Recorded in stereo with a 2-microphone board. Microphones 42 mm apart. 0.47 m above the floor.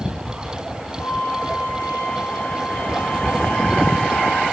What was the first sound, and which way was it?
A flute, 50° left (ahead or behind).